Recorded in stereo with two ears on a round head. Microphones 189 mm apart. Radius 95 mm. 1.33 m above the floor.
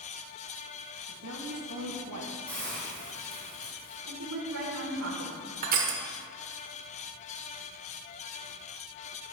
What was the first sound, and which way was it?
A woman speaking, 80° right.